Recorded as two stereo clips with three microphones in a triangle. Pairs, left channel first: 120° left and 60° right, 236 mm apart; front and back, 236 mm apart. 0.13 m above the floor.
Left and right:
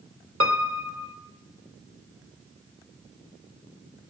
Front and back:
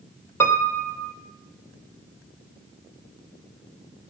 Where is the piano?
80° right, 1.3 m.